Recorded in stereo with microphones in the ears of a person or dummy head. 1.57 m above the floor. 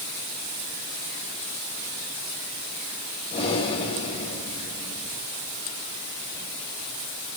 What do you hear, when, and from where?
3.3 s breathing: 35° left (ahead or behind), 3.5 m